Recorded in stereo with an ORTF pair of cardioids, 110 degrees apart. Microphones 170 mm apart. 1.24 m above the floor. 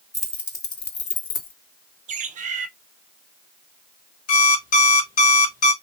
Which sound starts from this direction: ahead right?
A bird, at 2.1 s.